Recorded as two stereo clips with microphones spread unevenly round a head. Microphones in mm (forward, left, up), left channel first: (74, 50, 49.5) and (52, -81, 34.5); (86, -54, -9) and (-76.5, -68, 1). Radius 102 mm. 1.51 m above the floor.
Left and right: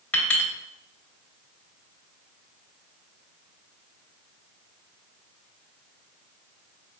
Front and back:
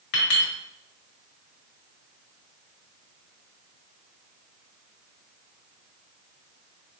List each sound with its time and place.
0.1 s a clink: 5° left, 1.9 m